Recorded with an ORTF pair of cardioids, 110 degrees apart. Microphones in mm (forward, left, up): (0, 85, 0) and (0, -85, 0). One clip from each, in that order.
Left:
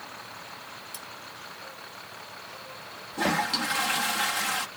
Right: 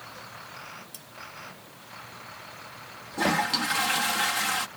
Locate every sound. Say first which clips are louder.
0.9 s cutlery clinking: left 6 dB; 10° left
3.1 s a toilet flushing: right 1 dB; 10° right